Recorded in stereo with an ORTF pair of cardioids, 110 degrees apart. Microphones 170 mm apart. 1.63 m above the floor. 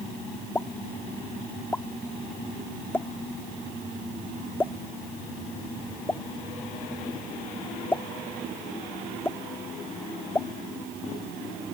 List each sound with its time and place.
0.6 s a pop: 15° left